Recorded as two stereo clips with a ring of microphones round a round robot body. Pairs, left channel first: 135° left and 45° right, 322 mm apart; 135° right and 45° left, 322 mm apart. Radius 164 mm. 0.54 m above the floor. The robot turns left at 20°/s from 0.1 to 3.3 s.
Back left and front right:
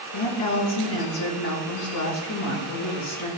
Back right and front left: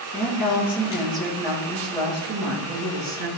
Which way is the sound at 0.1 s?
145° left.